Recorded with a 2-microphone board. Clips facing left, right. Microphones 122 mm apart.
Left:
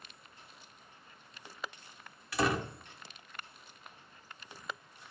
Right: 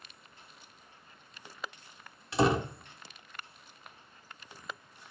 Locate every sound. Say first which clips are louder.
2.3 s a door slam: right 5 dB; 25° right (ahead or behind), 0.5 m